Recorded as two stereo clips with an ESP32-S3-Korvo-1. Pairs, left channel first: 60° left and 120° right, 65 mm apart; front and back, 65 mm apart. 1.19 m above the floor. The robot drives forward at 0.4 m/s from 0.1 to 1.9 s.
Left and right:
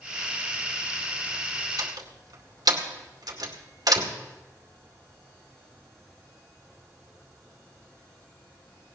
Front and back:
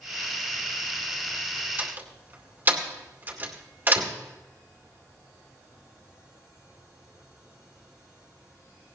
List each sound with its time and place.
1.8 s a door slam: 120° right, 2 m; by 4.1 s 125° right, 2 m